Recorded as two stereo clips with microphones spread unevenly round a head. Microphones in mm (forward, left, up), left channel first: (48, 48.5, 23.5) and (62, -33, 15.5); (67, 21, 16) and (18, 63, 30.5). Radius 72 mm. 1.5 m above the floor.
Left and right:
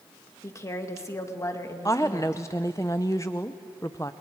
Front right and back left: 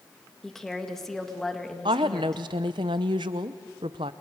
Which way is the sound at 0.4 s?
45° left.